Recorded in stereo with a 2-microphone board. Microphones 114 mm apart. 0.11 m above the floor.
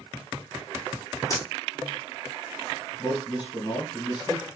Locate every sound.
1.3 s a dropped coin: 35° left (ahead or behind), 0.7 m
3.0 s a man speaking: 35° left (ahead or behind), 2 m